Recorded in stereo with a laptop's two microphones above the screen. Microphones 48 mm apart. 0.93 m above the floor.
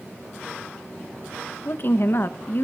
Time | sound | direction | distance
1.6 | a woman speaking | 50° left (ahead or behind) | 1.0 m